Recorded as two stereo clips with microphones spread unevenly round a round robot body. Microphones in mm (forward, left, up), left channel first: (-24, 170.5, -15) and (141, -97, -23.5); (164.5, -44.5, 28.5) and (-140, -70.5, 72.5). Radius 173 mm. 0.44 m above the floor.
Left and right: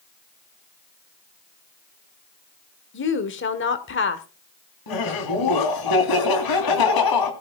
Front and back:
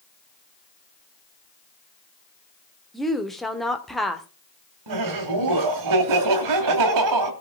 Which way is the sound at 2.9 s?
85° left.